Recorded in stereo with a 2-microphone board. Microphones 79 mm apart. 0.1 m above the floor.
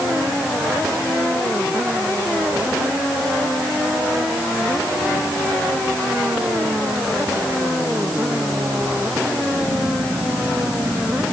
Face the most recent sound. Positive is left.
No sound to turn to.